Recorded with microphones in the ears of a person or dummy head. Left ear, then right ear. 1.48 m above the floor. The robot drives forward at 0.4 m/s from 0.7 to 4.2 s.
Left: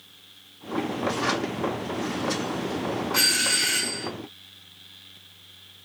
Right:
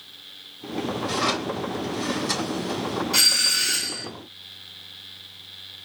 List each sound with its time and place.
1.1 s a drawer: 65° right (ahead or behind), 2 m
3.1 s a doorbell: 80° right, 2 m